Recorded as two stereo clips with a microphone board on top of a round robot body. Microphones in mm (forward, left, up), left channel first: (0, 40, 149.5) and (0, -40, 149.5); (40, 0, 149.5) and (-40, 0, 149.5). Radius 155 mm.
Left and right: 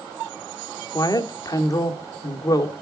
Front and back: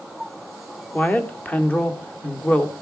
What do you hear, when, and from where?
0.9 s a woman speaking: 70° left, 1.9 m